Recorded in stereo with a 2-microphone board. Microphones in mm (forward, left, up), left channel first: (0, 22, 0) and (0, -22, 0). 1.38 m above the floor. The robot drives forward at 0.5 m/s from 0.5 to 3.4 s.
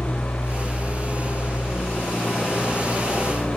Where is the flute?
I don't hear a flute.